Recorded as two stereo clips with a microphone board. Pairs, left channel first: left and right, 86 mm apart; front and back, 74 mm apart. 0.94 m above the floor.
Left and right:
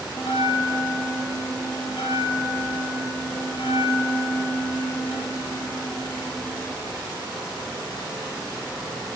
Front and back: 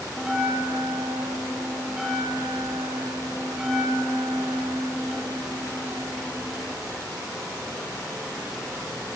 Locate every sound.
0.2 s a bell: 100° left, 2.5 m